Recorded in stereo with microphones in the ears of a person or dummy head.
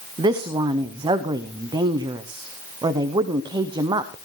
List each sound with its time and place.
0.2 s a woman speaking: 25° right (ahead or behind), 0.6 m